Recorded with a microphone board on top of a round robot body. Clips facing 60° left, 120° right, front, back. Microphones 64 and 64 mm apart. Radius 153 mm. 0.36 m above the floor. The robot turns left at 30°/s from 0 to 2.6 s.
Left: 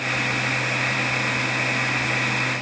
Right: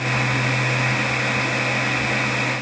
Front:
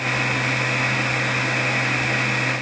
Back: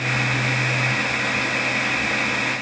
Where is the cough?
I don't hear a cough.